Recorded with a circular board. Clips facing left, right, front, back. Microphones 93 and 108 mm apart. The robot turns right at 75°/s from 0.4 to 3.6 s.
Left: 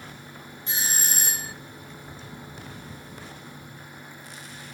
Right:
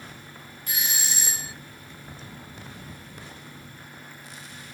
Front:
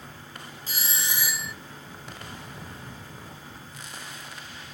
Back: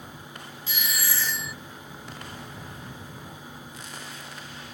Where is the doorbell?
30° left; by 1.5 s 100° left.